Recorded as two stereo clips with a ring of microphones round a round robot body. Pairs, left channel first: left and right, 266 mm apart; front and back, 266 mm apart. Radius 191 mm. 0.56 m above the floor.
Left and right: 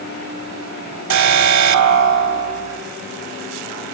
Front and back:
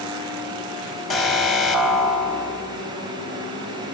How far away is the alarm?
About 4 m.